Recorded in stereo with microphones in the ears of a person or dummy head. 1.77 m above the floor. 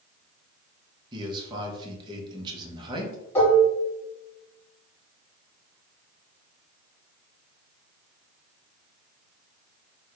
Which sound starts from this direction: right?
A man speaking, at 1.1 s.